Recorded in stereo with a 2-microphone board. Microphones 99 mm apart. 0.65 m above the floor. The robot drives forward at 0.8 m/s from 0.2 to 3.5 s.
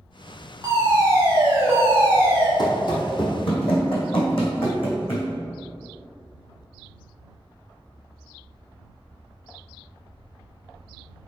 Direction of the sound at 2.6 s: 45° left (ahead or behind).